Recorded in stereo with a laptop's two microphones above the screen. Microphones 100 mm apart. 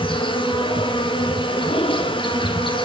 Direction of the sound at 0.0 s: 50° left (ahead or behind).